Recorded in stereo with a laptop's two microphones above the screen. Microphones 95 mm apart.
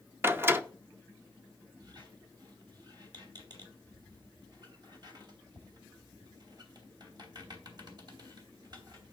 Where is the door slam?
25° right (ahead or behind), 0.9 m.